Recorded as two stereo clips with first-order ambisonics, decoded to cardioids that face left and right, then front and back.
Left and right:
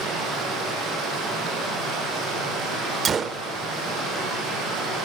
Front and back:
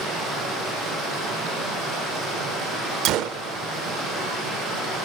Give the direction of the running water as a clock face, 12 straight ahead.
5 o'clock.